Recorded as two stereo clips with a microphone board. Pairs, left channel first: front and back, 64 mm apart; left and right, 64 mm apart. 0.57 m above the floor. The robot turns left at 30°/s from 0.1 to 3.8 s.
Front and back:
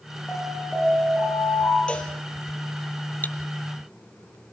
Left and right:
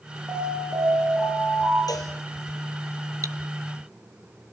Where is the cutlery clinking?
60° right, 0.5 m; by 3.4 s 65° right, 0.5 m.